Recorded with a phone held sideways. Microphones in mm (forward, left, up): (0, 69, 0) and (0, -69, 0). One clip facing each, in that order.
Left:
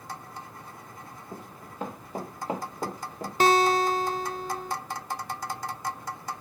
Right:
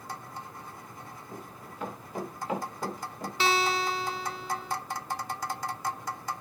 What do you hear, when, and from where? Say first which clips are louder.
1.3 s running footsteps: left 2 dB; 30° left (ahead or behind), 5 m
3.4 s a guitar: left 6 dB; 45° left (ahead or behind), 0.8 m